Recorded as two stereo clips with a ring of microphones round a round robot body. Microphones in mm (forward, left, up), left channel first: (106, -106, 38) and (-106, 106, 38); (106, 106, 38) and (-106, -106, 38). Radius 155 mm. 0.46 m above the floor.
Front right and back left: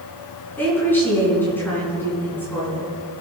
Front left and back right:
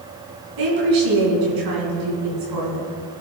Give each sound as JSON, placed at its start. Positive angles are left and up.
{"t": 0.6, "sound": "a woman speaking", "azimuth_deg": -130, "distance_m": 5.0}